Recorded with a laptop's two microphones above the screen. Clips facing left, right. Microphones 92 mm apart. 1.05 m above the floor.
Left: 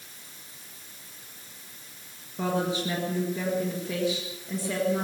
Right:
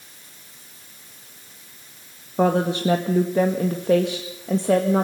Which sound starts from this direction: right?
A woman speaking, at 2.4 s.